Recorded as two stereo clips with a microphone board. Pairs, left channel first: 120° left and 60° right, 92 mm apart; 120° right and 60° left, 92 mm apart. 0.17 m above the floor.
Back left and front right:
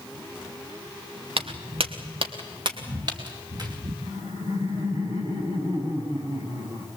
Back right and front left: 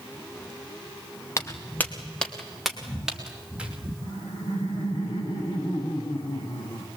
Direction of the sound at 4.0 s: 100° right.